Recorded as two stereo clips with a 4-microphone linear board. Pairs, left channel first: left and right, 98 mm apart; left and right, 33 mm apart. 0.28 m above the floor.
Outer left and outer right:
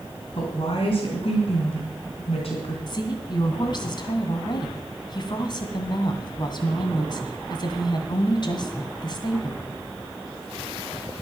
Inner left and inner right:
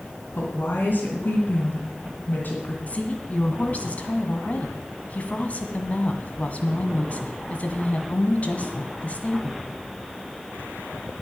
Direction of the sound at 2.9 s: 45° left (ahead or behind).